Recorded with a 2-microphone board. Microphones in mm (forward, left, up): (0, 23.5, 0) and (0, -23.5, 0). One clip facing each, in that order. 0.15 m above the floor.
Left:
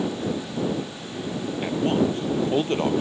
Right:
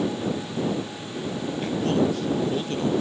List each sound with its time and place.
1.6 s a man speaking: 20° left (ahead or behind); by 3.0 s 40° left (ahead or behind)